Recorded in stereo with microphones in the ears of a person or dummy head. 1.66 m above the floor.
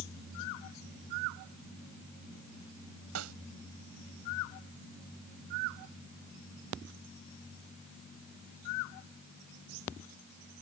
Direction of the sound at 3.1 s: 90° right.